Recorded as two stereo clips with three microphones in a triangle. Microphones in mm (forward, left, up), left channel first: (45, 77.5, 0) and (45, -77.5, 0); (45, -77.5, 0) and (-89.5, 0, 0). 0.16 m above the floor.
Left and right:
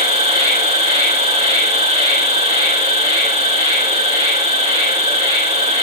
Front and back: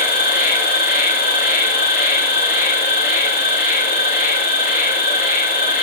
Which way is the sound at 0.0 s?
45° right.